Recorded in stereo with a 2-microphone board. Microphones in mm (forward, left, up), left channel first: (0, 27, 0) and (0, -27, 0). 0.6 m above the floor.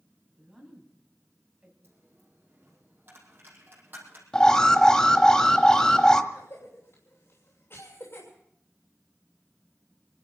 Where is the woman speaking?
5° right (ahead or behind), 4 m; by 1.7 s 20° right (ahead or behind), 4 m.